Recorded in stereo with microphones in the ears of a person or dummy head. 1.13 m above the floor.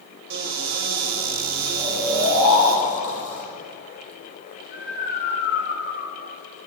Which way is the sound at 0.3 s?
65° right (ahead or behind).